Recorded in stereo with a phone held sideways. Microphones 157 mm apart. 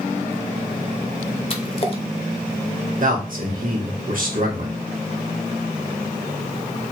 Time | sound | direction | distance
1.5 | a splash | 40° left (ahead or behind) | 0.8 m
3.0 | a man speaking | 60° right (ahead or behind) | 1.5 m